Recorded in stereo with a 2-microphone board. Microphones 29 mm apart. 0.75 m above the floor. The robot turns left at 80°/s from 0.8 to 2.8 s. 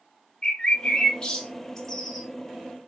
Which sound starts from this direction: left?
A bird, at 0.4 s.